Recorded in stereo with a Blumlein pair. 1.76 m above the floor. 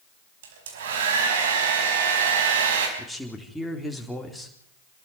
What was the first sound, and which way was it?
A hair dryer, 55° right.